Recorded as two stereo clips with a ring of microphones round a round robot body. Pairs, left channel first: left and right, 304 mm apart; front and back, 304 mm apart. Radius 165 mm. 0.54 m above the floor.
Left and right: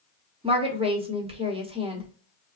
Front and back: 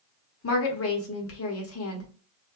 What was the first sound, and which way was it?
A woman speaking, 25° right.